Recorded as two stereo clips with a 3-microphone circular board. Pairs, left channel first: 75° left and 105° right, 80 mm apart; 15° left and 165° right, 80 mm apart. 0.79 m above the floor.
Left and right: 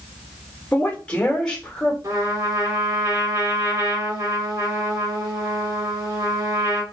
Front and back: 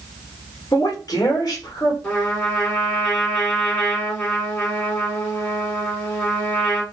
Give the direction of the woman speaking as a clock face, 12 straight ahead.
12 o'clock.